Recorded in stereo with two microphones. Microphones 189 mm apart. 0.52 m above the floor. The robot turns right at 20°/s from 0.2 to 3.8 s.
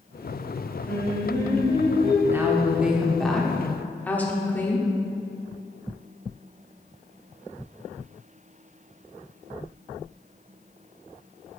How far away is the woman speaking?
About 0.8 m.